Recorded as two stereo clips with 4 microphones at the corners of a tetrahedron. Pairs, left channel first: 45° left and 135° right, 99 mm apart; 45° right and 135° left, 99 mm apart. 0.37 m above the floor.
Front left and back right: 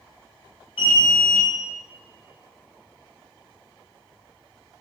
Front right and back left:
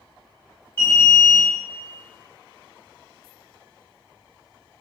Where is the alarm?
15° left, 1.3 m.